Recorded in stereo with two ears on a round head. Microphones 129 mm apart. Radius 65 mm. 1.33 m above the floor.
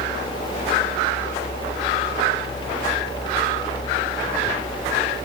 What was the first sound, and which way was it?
Only background noise.